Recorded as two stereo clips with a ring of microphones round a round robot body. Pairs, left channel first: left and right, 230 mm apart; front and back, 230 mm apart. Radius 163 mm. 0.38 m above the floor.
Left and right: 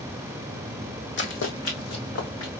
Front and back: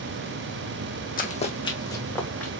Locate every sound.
1.2 s running footsteps: 50° left, 1.1 m; by 2.5 s 85° left, 2.5 m